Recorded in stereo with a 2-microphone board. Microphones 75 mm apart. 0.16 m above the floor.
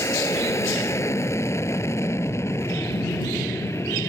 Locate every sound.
0.0 s an aircraft: 40° left (ahead or behind); by 4.1 s 35° left (ahead or behind)